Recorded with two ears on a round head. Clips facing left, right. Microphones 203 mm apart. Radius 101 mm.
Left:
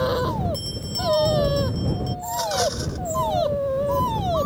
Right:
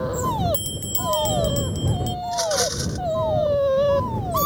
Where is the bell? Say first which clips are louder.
Right 1 dB; 80° right.